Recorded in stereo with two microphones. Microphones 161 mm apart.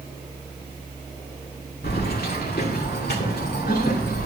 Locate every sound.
1.8 s keys jangling: 75° left (ahead or behind), 1.8 m; by 4.3 s 85° left, 3 m